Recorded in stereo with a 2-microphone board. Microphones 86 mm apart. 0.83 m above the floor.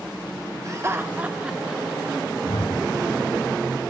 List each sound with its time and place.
0.7 s laughter: 40° right (ahead or behind), 0.5 m; by 2.2 s centre (ahead or behind), 1.1 m
2.4 s a whoosh: 75° left (ahead or behind), 4 m